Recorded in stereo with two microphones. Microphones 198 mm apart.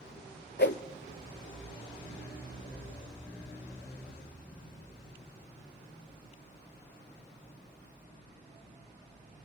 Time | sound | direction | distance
0.6 | a whoosh | 65° left (ahead or behind) | 0.6 m